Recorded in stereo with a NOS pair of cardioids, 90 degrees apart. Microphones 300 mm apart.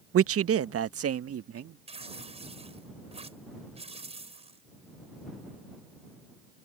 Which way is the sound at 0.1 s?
45° right.